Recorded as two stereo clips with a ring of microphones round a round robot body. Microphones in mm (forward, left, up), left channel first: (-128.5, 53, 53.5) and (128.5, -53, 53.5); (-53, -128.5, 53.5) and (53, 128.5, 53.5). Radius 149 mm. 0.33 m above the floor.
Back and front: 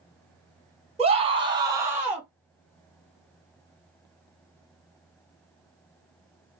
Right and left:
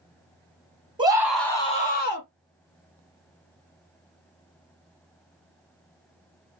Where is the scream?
15° left, 1.5 m; by 2.3 s 110° right, 1.7 m.